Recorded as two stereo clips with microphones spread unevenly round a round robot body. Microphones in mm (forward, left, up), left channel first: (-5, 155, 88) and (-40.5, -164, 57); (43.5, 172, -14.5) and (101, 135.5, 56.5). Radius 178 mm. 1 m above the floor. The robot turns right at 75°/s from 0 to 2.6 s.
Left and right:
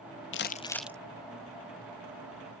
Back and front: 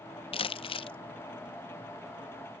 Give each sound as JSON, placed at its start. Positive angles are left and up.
{"t": 0.3, "sound": "crumpling", "azimuth_deg": 135}